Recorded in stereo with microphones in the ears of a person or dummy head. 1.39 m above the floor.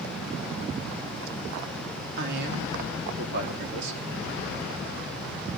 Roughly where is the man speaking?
Right.